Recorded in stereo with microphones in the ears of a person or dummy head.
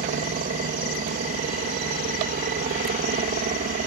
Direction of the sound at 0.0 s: 35° right (ahead or behind).